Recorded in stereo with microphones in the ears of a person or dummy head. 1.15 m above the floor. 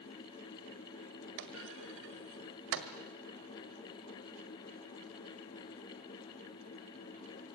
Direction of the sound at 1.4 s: 65° right (ahead or behind).